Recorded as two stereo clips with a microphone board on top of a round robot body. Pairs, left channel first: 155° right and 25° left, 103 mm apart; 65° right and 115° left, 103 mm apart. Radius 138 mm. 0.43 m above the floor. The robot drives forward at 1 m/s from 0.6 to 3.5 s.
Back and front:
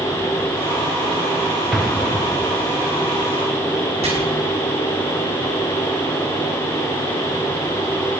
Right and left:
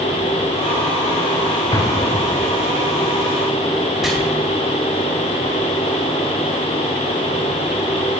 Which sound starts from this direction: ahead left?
Chopping, at 4.0 s.